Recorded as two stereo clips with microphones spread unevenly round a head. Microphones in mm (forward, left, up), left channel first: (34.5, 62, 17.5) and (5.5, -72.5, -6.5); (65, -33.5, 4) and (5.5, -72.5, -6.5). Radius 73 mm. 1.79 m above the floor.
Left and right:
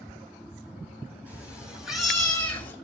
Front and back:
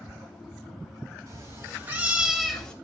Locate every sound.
1.3 s a cat meowing: 170° left, 2 m; by 2.8 s 70° left, 1.4 m